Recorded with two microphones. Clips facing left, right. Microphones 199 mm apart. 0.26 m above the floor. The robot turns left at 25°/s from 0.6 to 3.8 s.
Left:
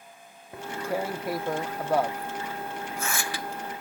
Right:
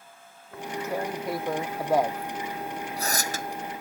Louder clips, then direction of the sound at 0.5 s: Even; 20° left (ahead or behind).